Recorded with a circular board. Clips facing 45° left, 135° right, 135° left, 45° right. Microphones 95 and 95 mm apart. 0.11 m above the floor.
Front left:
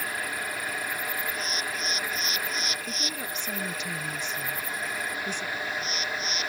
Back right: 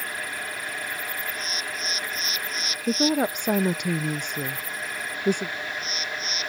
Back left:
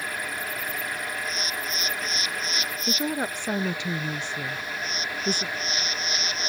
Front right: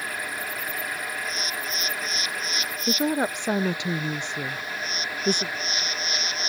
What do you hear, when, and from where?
2.9 s a woman speaking: 115° right